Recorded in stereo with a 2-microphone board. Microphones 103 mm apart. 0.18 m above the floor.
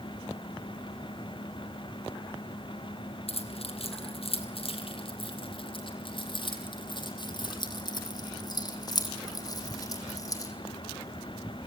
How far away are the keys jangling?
About 4.5 m.